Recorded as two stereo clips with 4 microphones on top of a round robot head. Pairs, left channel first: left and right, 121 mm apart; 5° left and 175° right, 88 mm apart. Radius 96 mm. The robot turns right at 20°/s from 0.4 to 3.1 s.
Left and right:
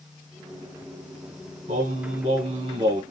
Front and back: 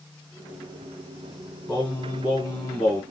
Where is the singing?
70° right, 1.7 m; by 3.0 s 45° right, 1.7 m.